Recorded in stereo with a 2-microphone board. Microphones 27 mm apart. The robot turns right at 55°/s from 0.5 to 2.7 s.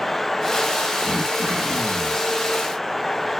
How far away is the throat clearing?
About 0.8 m.